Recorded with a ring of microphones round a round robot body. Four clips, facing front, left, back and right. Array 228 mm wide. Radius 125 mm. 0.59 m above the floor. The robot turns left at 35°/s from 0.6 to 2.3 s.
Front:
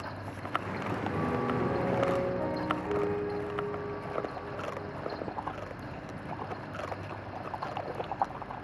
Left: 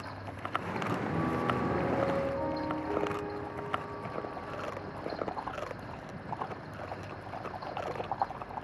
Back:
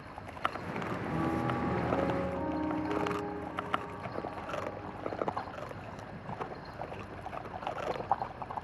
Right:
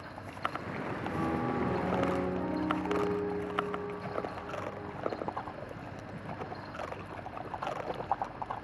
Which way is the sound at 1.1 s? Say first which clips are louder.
Right 1 dB, even; 5° right.